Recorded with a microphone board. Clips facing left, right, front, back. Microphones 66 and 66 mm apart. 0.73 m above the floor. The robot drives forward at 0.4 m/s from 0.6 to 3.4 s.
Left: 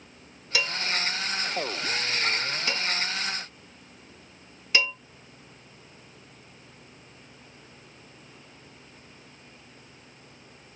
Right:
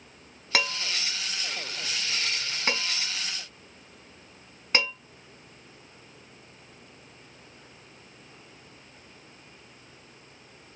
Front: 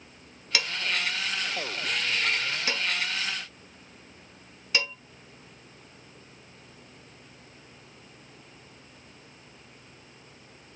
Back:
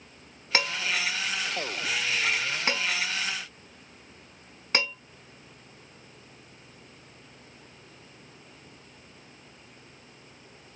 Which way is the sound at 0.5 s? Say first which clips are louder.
Even, back 2 dB; 125° right.